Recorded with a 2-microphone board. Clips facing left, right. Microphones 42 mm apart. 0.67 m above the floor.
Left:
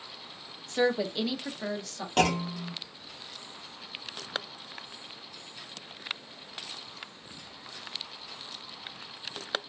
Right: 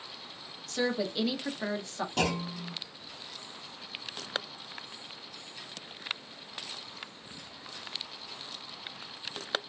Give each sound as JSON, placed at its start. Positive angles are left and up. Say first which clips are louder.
{"t": 0.7, "sound": "a woman speaking", "louder": "left 4 dB", "side_deg": 30, "distance_m": 0.7}
{"t": 2.2, "sound": "a clunk", "louder": "left 6 dB", "side_deg": 70, "distance_m": 0.7}